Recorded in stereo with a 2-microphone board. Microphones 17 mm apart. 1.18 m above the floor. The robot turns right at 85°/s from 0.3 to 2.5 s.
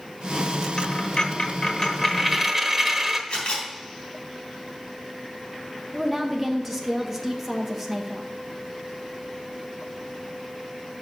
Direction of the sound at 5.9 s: 5° right (ahead or behind).